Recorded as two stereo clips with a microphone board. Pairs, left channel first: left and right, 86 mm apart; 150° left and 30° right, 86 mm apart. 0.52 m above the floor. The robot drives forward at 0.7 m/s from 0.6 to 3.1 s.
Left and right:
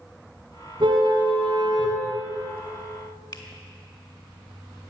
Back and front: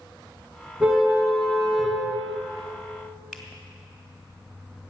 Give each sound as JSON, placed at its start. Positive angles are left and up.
{"t": 0.8, "sound": "a car horn", "azimuth_deg": -110, "distance_m": 2.5}
{"t": 3.3, "sound": "a finger snap", "azimuth_deg": 65, "distance_m": 2.0}